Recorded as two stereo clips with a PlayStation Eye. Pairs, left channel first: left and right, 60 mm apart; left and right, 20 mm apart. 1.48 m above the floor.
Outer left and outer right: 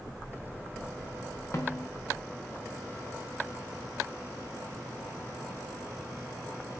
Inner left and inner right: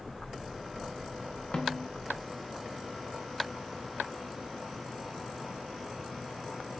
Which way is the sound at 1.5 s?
50° left (ahead or behind).